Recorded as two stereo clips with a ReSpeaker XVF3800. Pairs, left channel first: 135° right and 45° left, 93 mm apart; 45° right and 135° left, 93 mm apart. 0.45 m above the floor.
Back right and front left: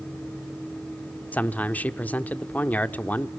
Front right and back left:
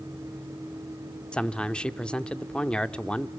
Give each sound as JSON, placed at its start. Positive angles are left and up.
{"t": 1.3, "sound": "a man speaking", "azimuth_deg": -105, "distance_m": 0.8}